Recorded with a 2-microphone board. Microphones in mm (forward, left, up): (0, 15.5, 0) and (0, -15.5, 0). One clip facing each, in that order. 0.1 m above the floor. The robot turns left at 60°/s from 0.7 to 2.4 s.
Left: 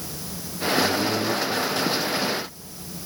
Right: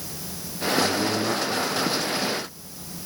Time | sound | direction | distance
0.8 | a man speaking | 10° right | 4.5 m